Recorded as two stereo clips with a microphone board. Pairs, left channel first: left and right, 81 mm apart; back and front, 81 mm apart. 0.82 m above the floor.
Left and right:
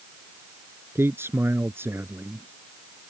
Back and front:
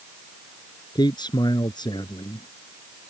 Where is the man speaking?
150° right.